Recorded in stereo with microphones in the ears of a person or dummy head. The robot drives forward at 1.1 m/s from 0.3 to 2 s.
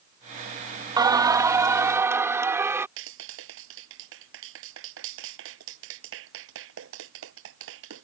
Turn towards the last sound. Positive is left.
turn(degrees=-75)  # may be behind; listen again after turning